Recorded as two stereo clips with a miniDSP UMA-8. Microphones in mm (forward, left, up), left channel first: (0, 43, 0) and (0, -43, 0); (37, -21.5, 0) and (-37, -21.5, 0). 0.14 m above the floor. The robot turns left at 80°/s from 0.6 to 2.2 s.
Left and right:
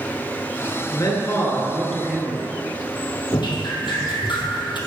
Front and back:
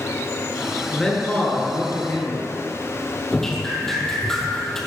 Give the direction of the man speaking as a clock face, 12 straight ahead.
9 o'clock.